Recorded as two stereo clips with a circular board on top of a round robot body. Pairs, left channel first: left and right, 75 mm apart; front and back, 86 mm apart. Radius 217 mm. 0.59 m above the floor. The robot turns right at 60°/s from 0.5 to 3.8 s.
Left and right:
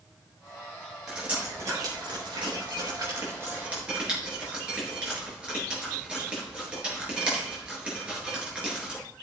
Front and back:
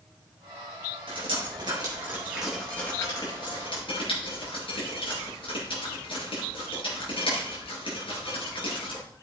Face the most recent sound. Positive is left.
turn(degrees=-15)